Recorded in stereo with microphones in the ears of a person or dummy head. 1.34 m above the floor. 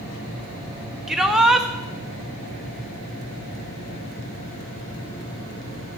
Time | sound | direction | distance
1.1 | a shout | 5° right (ahead or behind) | 1.1 m